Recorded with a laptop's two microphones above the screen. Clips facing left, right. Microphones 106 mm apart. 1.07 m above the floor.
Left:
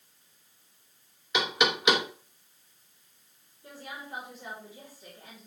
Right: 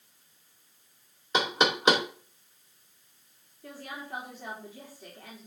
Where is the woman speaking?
75° right (ahead or behind), 3 m.